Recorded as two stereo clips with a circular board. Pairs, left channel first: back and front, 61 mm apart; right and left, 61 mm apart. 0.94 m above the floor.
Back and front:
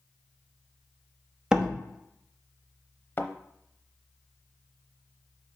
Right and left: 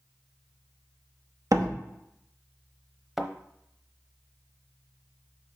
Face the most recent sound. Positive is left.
turn(degrees=170)